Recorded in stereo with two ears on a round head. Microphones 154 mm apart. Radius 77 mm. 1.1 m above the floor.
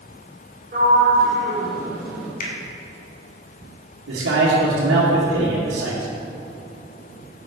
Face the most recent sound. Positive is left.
turn(degrees=-75)  # may be behind; listen again after turning